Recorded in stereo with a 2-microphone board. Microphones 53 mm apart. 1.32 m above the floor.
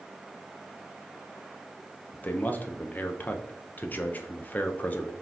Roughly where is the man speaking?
Left.